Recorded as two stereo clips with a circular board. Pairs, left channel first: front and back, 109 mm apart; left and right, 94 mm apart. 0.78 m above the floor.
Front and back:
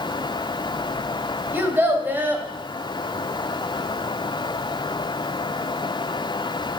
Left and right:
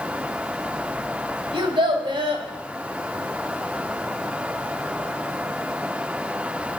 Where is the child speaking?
110° right, 2 m.